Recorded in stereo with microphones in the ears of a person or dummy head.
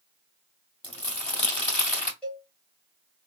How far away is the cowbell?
About 2.0 m.